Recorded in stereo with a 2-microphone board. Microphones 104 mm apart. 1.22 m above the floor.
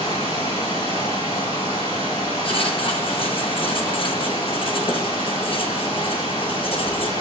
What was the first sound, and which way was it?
Running water, 70° left (ahead or behind).